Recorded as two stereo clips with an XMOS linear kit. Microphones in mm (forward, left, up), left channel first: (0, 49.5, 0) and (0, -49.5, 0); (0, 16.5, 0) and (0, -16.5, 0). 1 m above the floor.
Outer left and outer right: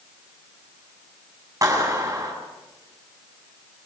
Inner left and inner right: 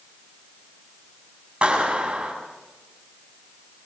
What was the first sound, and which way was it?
A clap, 35° right (ahead or behind).